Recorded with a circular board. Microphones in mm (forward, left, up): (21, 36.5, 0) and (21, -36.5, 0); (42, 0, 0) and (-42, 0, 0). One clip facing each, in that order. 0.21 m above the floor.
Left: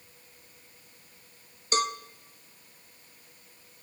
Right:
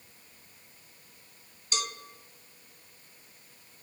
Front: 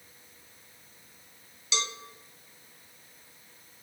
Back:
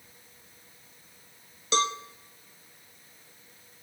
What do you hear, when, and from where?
1.7 s a cowbell: 135° left, 0.5 m